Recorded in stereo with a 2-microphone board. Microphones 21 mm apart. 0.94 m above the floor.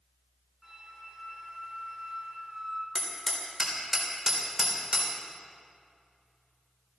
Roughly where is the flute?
Centre.